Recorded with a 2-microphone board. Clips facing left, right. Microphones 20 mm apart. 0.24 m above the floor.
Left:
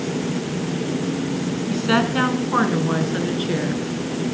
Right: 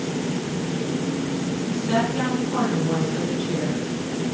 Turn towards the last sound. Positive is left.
turn(degrees=50)  # may be behind; listen again after turning